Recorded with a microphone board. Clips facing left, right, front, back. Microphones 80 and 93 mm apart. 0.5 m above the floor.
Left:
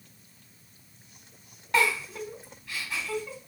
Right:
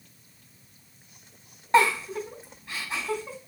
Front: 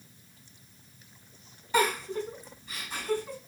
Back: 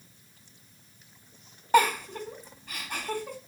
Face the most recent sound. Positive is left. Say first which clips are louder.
# right 5 dB, back 4 dB
turn(degrees=-150)